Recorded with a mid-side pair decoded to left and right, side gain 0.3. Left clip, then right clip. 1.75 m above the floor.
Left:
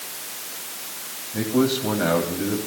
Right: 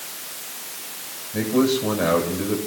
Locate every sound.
1.3 s a man speaking: 70° right, 8.5 m